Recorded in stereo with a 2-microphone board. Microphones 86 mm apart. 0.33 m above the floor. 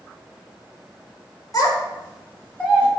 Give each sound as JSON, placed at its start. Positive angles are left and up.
{"t": 1.5, "sound": "a child speaking", "side_deg": 45, "distance_m": 1.1}